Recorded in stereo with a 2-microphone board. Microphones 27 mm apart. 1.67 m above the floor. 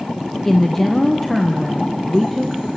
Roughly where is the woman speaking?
Centre.